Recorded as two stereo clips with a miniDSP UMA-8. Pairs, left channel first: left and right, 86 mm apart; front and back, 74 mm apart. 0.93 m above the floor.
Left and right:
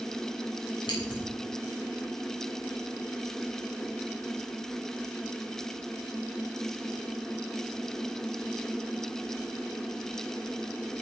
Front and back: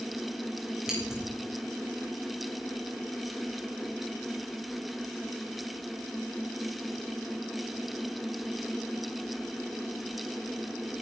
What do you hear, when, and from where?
0.9 s scissors: 100° left, 6.5 m